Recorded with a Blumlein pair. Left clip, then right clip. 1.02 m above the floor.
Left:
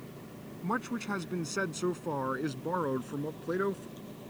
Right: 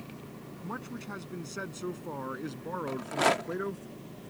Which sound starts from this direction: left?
A man speaking, at 0.6 s.